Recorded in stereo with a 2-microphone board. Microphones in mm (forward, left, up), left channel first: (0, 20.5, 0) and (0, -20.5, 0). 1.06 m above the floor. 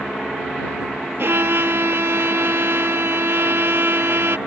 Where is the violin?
70° right (ahead or behind).